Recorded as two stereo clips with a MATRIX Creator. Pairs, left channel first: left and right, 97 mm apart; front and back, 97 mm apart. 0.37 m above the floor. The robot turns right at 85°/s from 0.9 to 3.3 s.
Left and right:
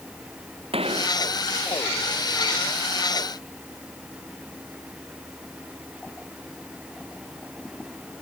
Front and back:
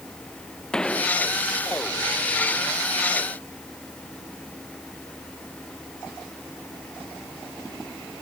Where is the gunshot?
80° right; by 1.1 s 60° right.